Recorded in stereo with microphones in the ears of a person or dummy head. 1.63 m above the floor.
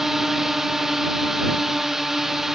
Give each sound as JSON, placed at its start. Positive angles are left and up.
{"t": 0.0, "sound": "a drone", "side_deg": 0}